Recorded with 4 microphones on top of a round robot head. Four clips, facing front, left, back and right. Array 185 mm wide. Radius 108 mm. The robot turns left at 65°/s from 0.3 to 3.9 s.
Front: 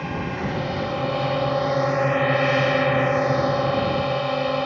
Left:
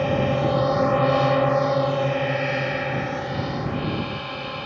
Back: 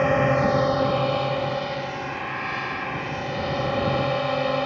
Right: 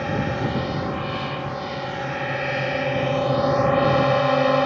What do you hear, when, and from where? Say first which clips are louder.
0.0 s a drone: left 3 dB, back 8 dB; 150° left; by 4.7 s 85° right